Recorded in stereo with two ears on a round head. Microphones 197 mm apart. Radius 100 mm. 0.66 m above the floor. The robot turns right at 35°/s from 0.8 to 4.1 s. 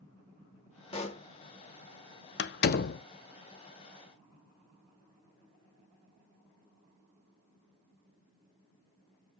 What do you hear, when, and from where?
0.9 s a pop: 25° left (ahead or behind), 0.9 m; by 1.2 s 35° left (ahead or behind), 0.9 m
2.4 s a door slam: 50° left (ahead or behind), 0.6 m; by 3.0 s 40° left (ahead or behind), 0.6 m